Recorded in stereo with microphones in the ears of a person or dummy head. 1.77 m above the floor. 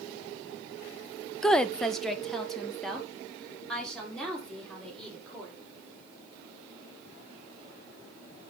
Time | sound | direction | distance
1.4 | a woman speaking | 5° left (ahead or behind) | 0.5 m